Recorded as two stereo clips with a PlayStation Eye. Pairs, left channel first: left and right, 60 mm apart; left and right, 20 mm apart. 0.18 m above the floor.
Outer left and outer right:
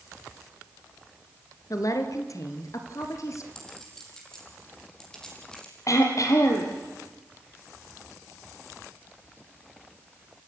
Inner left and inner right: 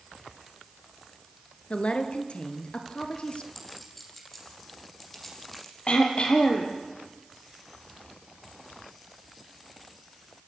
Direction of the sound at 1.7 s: 65° left (ahead or behind).